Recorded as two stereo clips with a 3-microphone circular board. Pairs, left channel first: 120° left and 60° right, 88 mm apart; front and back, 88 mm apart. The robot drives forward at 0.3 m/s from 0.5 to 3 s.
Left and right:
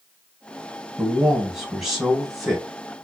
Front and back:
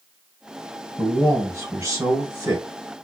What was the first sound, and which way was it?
A man speaking, 140° right.